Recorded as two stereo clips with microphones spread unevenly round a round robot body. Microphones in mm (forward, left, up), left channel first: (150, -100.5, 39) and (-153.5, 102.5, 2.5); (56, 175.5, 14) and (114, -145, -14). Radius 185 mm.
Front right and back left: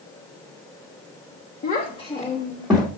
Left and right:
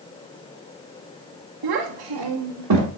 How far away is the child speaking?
About 1.0 m.